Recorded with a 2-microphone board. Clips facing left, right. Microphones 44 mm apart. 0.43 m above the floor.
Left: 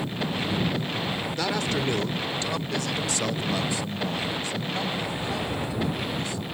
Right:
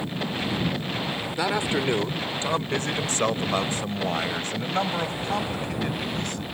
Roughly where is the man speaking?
Centre.